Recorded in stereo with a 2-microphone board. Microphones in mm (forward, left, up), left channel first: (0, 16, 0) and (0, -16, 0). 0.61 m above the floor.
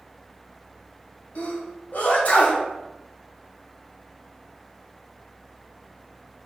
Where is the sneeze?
55° left (ahead or behind), 2.5 m.